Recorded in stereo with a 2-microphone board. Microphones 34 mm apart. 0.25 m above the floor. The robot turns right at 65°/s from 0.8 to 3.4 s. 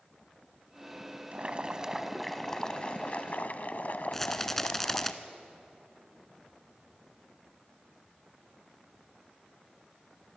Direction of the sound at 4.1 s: 10° left (ahead or behind).